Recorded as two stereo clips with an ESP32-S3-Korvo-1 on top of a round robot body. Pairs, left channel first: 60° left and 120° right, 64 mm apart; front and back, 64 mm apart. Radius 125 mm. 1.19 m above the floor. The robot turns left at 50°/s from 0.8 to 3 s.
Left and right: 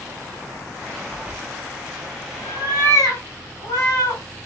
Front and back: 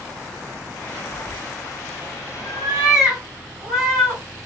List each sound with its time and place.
1.1 s a cat meowing: 165° right, 2 m; by 4.2 s 100° left, 2 m